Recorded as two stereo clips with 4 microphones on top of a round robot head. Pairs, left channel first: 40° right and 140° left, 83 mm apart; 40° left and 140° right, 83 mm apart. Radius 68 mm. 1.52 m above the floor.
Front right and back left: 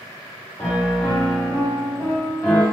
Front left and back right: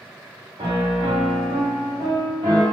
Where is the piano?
110° right, 0.8 m.